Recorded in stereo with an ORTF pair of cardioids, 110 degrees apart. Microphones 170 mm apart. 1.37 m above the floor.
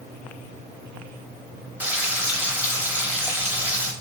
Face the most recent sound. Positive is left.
turn(degrees=-10)